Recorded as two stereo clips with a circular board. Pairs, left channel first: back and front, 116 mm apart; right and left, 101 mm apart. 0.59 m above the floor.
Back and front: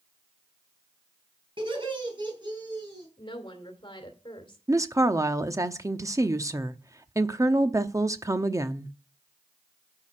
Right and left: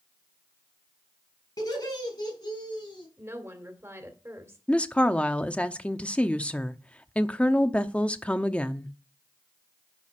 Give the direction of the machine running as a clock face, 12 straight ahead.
I don't hear a machine running.